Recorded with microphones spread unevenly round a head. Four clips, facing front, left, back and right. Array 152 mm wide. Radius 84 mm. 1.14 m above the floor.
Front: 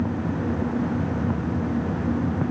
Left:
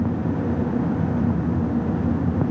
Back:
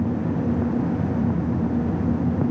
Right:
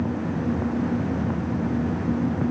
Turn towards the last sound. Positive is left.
No sound to turn to.